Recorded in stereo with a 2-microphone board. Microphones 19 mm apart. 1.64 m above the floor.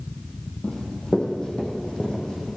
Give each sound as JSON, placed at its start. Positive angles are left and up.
{"t": 0.6, "sound": "running footsteps", "side_deg": 50, "distance_m": 3.0}